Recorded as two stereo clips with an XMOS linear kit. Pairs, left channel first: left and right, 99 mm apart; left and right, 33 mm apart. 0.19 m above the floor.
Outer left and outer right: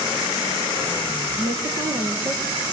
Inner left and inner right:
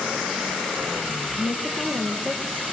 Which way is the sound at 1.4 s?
50° right (ahead or behind).